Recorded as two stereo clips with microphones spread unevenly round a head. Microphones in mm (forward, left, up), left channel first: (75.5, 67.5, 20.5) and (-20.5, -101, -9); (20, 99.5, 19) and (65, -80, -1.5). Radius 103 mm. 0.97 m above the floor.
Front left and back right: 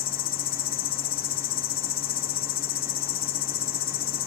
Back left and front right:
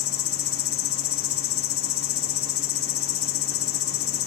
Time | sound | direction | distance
0.0 | an insect | 110° left | 0.9 m